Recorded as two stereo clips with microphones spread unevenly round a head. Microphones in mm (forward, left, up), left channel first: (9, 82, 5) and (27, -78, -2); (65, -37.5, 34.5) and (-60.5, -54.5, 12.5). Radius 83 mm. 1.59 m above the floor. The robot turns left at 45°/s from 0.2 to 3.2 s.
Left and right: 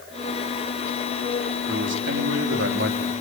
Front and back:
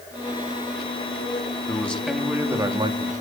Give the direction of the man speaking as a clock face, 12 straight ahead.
2 o'clock.